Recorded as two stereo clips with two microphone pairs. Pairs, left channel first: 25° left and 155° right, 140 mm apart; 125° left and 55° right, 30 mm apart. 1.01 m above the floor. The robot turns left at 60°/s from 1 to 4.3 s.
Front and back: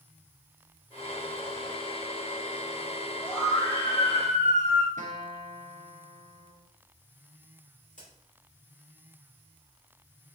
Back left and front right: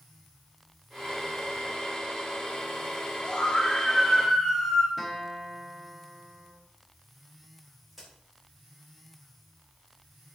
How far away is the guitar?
About 0.9 m.